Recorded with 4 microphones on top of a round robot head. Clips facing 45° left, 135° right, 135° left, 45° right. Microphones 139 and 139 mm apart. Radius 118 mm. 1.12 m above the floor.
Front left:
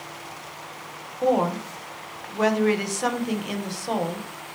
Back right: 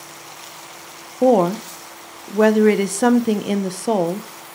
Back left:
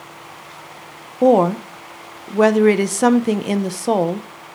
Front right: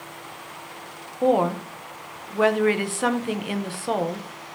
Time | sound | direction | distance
1.2 | a woman speaking | 175° right | 0.8 m